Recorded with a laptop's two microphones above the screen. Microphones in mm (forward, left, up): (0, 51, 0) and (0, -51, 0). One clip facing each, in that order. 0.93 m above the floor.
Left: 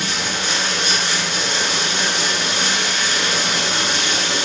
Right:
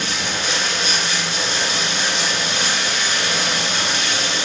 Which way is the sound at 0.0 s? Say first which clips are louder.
Even; 70° left (ahead or behind).